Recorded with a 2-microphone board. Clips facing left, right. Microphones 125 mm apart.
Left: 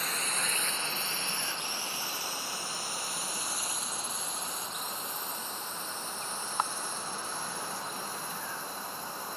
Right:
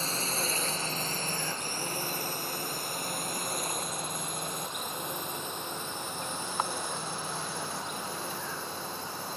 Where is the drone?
30° right (ahead or behind); by 9.4 s 70° right (ahead or behind).